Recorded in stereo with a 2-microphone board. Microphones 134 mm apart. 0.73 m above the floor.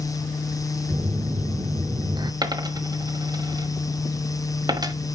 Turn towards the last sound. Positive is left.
turn(degrees=-30)  # may be behind; listen again after turning